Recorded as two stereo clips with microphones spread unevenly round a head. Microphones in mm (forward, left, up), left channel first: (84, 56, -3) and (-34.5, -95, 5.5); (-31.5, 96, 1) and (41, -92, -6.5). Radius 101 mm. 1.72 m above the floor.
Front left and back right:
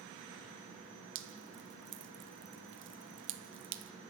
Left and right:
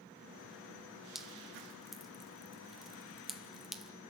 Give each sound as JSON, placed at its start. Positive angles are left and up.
{"t": 1.1, "sound": "dripping", "azimuth_deg": -160, "distance_m": 1.1}